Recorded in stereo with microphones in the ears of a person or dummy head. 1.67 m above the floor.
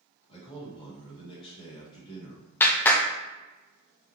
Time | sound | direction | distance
0.3 | a man speaking | 35° left (ahead or behind) | 2.0 m
2.6 | a clap | 15° left (ahead or behind) | 0.6 m